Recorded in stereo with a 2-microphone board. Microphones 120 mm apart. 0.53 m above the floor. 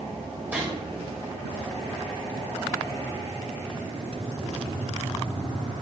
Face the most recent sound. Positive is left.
turn(degrees=-15)  # may be behind; listen again after turning